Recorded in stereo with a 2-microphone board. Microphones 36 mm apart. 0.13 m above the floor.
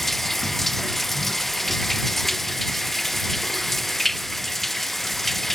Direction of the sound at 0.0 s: 5° left (ahead or behind).